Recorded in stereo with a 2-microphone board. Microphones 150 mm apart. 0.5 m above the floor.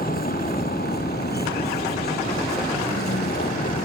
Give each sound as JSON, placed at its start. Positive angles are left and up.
{"t": 0.0, "sound": "a vehicle", "side_deg": 65}